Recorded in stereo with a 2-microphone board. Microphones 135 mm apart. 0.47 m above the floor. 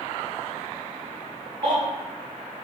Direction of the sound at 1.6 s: 35° right (ahead or behind).